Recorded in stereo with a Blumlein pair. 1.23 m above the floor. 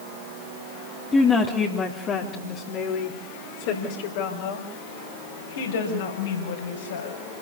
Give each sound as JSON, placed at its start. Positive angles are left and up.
{"t": 1.1, "sound": "a woman speaking", "azimuth_deg": 10, "distance_m": 3.0}